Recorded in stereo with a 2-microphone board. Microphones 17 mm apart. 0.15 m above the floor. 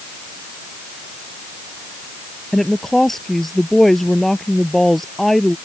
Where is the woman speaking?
20° left (ahead or behind).